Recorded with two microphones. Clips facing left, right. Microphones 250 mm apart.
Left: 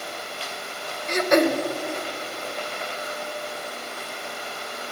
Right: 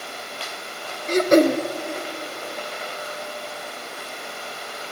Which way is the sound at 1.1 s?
35° right (ahead or behind).